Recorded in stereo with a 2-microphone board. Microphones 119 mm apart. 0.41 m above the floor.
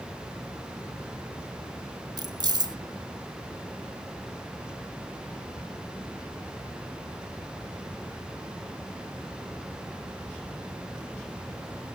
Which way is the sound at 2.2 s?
35° right (ahead or behind).